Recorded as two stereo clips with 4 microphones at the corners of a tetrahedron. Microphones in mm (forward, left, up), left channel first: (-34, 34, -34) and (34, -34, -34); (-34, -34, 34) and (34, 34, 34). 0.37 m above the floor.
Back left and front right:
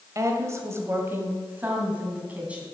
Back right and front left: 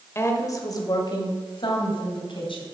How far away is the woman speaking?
About 1.5 m.